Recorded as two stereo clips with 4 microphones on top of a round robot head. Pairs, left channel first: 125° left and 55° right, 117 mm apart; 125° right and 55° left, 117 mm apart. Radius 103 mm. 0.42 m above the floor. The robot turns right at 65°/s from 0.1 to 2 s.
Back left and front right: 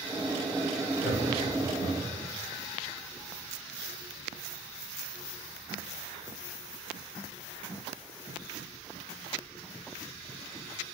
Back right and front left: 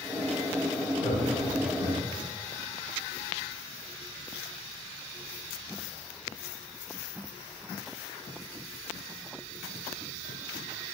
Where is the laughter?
Straight behind, 2.5 m; by 2.2 s 115° right, 2.5 m.